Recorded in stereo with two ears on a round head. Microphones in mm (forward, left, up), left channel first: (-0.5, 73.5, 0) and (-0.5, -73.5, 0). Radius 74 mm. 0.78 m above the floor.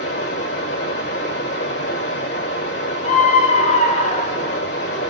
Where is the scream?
40° left (ahead or behind), 0.5 m.